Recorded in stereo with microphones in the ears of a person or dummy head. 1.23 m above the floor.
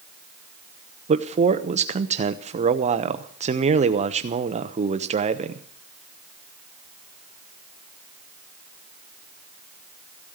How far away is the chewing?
I don't hear chewing.